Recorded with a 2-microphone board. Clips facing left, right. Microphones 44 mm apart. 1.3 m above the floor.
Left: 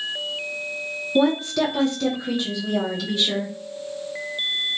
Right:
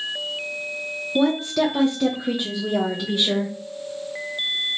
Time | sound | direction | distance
1.1 | a woman speaking | 10° left (ahead or behind) | 0.5 m